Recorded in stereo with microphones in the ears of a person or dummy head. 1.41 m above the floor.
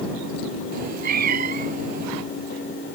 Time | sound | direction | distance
0.7 | a cat meowing | 50° right (ahead or behind) | ?